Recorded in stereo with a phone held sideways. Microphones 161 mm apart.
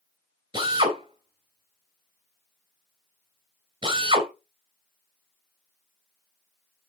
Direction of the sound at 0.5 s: 30° right (ahead or behind).